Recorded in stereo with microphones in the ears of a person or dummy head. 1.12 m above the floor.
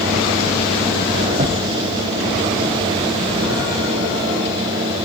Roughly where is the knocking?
Right.